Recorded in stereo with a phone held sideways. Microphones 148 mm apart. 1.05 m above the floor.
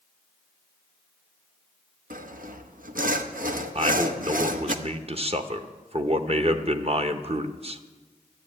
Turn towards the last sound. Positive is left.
turn(degrees=-45)  # may be behind; listen again after turning